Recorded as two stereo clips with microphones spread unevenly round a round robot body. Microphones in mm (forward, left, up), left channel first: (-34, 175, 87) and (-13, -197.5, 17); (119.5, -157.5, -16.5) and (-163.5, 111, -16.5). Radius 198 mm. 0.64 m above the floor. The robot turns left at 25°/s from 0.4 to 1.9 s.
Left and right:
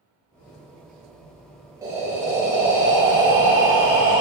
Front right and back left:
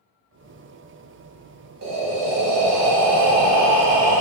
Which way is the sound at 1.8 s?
170° right.